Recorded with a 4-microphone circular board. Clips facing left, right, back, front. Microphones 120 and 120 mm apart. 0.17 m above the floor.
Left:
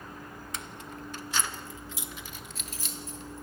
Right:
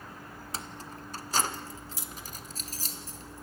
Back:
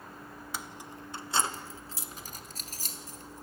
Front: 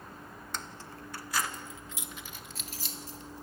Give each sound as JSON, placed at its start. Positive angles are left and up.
{"t": 0.5, "sound": "keys jangling", "azimuth_deg": -105, "distance_m": 0.8}